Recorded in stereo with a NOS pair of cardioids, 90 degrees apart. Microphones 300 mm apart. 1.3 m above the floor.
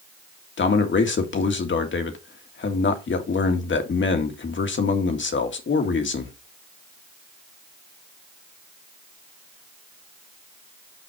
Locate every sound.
0.6 s a man speaking: 40° left, 2.0 m